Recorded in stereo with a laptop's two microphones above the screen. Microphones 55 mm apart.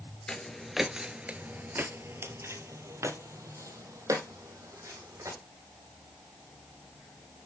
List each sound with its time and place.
0.3 s footsteps: 10° left (ahead or behind), 1.0 m; by 5.4 s 65° right (ahead or behind), 3 m